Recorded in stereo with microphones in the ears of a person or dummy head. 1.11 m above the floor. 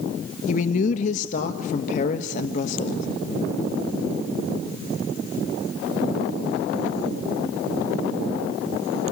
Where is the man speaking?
45° left (ahead or behind), 1.2 m.